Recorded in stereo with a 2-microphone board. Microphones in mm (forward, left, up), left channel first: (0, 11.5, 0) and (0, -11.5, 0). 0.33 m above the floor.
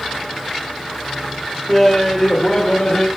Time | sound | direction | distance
1.7 | laughter | centre (ahead or behind) | 0.8 m